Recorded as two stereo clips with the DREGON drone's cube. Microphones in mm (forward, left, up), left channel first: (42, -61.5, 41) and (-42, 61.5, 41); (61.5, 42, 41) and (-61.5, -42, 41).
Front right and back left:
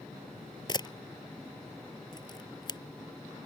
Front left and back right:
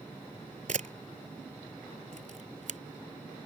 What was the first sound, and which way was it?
A camera shutter, 115° right.